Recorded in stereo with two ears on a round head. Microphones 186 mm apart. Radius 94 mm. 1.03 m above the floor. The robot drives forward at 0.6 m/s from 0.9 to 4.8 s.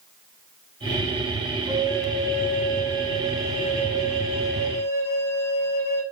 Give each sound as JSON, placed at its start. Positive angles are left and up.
{"t": 1.7, "sound": "a flute", "side_deg": -15, "distance_m": 7.0}